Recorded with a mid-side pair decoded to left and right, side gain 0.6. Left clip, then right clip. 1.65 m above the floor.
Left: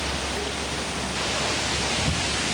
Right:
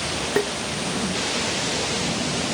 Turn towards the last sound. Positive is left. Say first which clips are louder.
# right 7 dB
turn(degrees=-60)